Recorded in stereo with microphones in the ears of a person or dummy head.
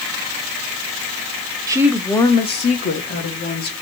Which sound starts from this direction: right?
A woman speaking, at 1.7 s.